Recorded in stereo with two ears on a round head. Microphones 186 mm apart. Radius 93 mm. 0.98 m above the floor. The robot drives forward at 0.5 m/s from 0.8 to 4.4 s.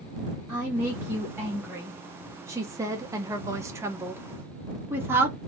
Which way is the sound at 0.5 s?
10° right (ahead or behind).